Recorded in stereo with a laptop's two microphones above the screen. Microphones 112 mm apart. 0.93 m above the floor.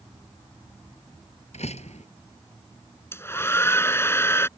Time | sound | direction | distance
1.5 | a door slam | 75° left (ahead or behind) | ?
3.1 | a hair dryer | 20° left (ahead or behind) | ?